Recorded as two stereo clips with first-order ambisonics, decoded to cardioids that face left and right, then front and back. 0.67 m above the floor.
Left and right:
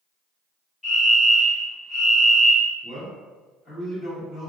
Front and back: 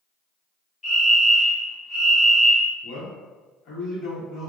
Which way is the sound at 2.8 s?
25° left.